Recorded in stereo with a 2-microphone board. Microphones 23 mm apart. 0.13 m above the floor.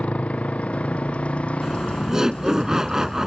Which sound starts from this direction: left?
A motorcycle, at 0.0 s.